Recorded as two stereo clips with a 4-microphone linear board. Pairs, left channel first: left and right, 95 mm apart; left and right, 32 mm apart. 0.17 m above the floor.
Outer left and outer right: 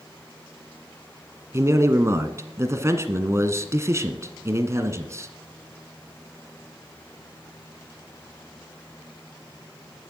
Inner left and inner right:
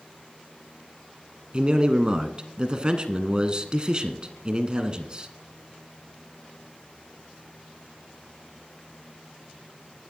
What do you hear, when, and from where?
1.5 s a man speaking: 30° right (ahead or behind), 1.4 m